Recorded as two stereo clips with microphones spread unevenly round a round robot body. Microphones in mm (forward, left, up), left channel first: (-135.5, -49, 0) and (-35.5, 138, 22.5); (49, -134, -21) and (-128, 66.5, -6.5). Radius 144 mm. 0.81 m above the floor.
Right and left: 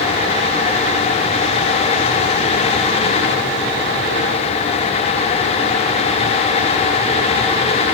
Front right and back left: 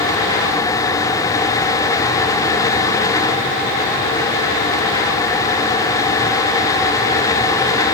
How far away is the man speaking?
No man speaking in this recording.